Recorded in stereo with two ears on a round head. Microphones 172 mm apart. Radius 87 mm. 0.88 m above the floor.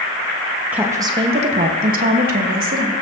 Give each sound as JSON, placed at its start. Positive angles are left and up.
{"t": 0.7, "sound": "a woman speaking", "side_deg": -5, "distance_m": 0.9}